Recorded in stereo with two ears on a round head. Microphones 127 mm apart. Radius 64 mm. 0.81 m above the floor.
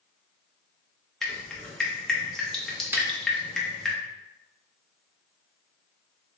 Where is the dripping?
5° left (ahead or behind), 0.7 m.